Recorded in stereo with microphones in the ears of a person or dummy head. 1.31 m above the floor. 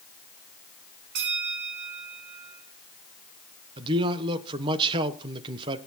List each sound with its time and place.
1.1 s a bell: 55° right (ahead or behind), 5 m
3.8 s a man speaking: 25° right (ahead or behind), 1.0 m